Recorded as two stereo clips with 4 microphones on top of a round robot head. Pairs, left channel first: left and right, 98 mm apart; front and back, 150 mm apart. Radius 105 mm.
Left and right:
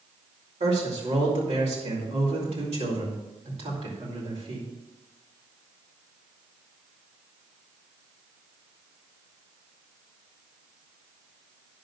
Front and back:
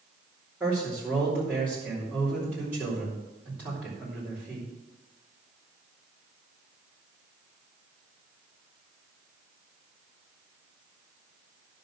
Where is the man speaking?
100° right, 4.5 m.